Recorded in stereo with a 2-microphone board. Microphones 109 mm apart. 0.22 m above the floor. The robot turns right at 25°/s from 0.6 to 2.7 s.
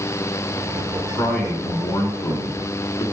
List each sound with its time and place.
1.1 s a man speaking: 15° left, 1.6 m; by 3.0 s 50° left, 1.6 m